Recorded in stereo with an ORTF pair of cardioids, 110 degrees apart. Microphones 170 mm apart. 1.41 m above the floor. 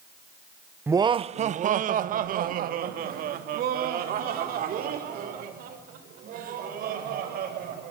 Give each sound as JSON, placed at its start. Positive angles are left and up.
{"t": 0.9, "sound": "laughter", "azimuth_deg": -15, "distance_m": 0.5}